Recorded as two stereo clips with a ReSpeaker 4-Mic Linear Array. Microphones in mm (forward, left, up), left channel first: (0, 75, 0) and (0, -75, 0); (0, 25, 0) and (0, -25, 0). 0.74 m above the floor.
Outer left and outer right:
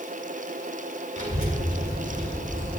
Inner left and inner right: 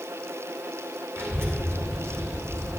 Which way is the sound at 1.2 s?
55° right (ahead or behind).